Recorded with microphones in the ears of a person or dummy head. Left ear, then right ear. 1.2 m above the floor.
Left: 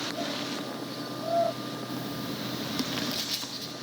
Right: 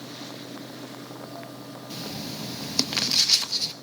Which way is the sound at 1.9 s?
40° right (ahead or behind).